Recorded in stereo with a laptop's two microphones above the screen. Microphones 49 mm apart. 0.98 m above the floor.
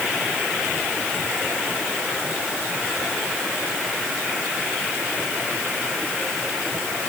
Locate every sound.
Only background noise.